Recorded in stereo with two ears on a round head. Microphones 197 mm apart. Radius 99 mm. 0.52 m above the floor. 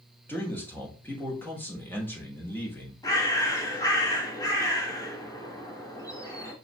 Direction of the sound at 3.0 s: 15° left (ahead or behind).